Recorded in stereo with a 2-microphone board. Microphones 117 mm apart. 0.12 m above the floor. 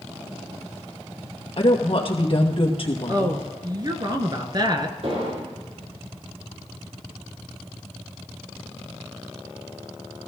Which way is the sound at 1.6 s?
50° left (ahead or behind).